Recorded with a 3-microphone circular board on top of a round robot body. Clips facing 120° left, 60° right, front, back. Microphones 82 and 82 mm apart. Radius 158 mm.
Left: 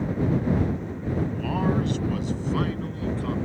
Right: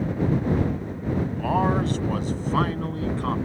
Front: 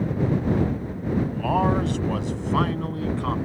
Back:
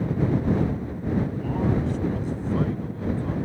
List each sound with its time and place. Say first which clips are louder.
1.3 s a man speaking: right 4 dB, front 4 dB; 5° right; by 3.4 s 15° right